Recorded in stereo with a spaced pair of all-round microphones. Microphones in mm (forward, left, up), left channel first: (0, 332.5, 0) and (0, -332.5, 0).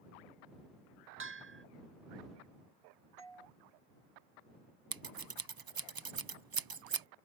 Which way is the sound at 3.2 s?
45° right (ahead or behind).